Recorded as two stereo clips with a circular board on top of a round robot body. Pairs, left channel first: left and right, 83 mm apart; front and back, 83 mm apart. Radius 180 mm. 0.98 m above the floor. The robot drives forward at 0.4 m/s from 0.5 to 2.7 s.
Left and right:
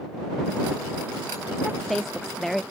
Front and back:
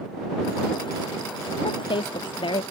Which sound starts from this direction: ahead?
A woman speaking, at 1.6 s.